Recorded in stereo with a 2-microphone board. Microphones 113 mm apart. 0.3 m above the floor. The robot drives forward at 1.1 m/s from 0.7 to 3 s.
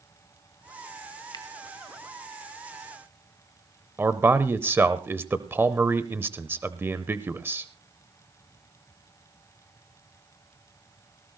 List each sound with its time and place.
1.3 s a finger snap: 40° left (ahead or behind), 2 m; by 1.4 s 35° left (ahead or behind), 2 m
4.0 s a man speaking: 20° right (ahead or behind), 0.9 m